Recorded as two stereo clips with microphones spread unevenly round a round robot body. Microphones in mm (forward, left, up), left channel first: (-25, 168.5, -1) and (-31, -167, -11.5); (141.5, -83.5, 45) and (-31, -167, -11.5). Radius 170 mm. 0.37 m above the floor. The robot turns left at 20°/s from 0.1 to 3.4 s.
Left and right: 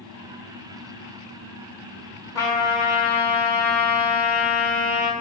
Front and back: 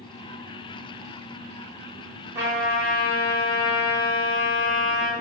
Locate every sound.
2.4 s a trumpet: 165° left, 1.1 m; by 5.1 s 145° left, 1.1 m